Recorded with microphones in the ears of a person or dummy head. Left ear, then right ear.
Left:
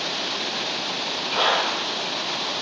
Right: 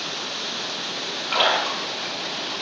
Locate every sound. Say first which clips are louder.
1.3 s a splash: right 1 dB; 45° right (ahead or behind), 0.6 m